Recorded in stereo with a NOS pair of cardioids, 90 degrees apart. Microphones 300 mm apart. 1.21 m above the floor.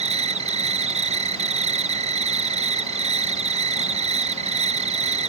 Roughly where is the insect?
Ahead.